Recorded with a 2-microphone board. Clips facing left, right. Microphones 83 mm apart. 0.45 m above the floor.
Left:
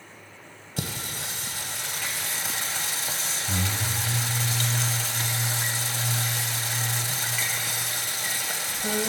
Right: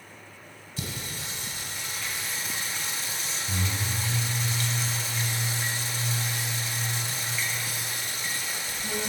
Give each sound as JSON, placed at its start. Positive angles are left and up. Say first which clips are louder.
{"t": 0.8, "sound": "singing", "louder": "left 3 dB", "side_deg": 85, "distance_m": 0.8}